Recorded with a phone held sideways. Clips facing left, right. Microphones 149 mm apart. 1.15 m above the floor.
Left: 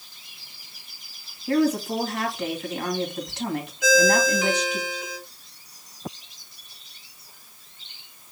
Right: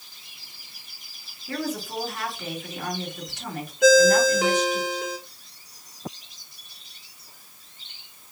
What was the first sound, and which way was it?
A woman speaking, 85° left.